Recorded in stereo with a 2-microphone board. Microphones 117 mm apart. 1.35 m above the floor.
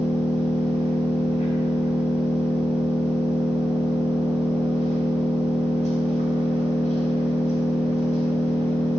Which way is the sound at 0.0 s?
80° left.